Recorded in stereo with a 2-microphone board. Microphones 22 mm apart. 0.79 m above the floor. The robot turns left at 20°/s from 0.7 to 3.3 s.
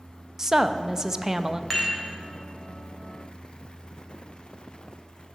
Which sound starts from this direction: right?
A woman speaking, at 0.4 s.